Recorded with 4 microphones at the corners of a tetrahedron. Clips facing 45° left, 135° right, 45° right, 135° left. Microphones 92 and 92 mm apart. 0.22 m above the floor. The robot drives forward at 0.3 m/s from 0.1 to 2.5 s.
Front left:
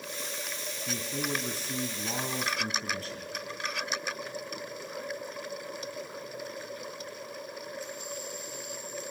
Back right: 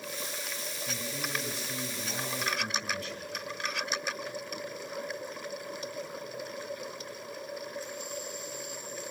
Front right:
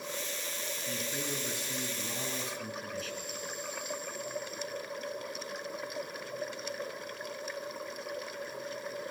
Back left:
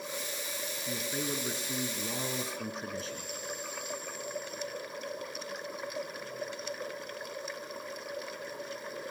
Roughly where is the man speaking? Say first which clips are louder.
Front left 4 dB, back left 3 dB; left.